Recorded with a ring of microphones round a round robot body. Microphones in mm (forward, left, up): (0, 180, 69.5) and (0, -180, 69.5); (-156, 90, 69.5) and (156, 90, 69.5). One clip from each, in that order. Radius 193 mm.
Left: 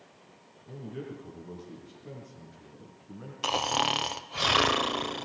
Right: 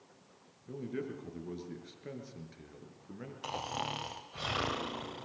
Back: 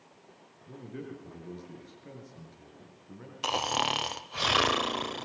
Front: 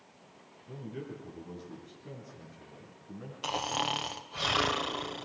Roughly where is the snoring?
Behind left.